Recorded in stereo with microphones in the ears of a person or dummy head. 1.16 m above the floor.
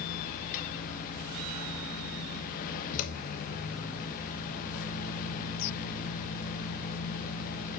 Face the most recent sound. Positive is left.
turn(degrees=55)  # may be behind; listen again after turning